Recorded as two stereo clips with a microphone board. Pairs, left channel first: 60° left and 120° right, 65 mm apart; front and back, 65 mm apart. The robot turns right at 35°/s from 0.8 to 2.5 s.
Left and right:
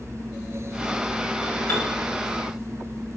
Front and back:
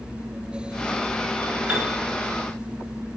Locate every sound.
1.7 s a piano: 110° left, 1.0 m; by 2.0 s 120° left, 1.0 m